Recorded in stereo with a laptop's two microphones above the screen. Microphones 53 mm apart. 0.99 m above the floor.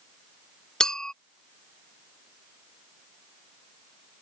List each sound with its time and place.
0.8 s a clink: 10° left (ahead or behind)